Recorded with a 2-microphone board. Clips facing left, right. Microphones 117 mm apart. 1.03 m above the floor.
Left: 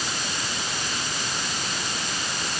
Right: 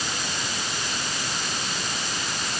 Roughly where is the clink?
I don't hear a clink.